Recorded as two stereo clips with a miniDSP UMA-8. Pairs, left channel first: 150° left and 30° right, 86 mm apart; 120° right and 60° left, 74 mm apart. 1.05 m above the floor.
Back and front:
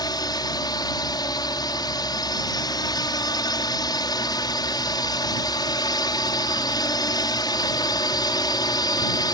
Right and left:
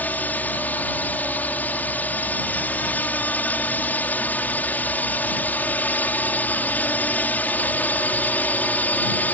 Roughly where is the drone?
Behind.